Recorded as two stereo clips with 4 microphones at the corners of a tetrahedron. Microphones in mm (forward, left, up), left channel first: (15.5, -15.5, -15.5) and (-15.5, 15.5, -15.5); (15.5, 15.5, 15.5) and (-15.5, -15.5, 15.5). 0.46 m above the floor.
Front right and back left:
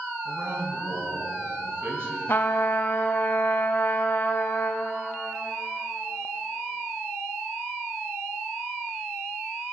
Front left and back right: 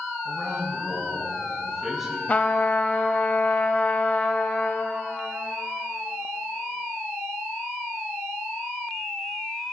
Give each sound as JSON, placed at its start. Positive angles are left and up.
{"t": 0.2, "sound": "a man speaking", "azimuth_deg": 145, "distance_m": 3.5}
{"t": 2.3, "sound": "a trumpet", "azimuth_deg": -10, "distance_m": 0.7}